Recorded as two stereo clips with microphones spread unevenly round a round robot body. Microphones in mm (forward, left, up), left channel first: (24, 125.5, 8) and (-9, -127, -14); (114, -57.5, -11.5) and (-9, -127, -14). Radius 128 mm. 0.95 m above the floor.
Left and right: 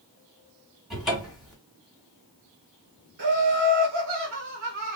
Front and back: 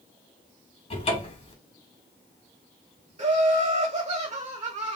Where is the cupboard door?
10° right, 1.5 m.